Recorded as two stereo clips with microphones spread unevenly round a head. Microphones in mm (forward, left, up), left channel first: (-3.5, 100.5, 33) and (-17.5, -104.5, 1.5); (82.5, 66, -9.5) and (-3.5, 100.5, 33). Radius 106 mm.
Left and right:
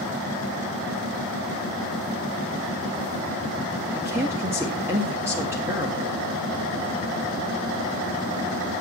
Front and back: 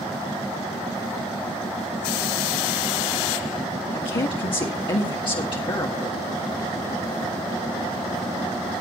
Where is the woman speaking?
20° right, 1.7 m.